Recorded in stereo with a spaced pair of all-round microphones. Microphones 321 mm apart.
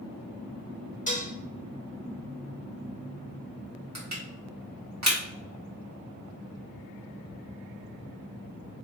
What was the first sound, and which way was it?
Dishes clattering, 25° left (ahead or behind).